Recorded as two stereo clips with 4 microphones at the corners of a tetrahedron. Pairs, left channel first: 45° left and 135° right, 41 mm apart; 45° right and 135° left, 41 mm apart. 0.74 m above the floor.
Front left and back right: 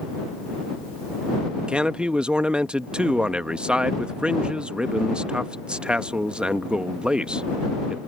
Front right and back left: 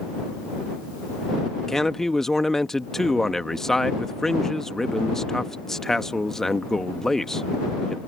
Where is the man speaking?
110° right.